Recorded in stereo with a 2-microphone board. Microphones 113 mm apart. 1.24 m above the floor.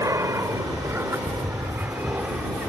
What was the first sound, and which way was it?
An aircraft, 25° right (ahead or behind).